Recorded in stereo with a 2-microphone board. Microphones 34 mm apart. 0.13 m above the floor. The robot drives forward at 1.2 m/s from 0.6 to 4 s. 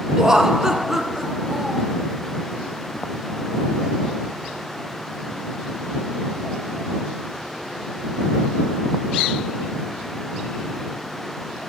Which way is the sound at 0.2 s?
15° right (ahead or behind).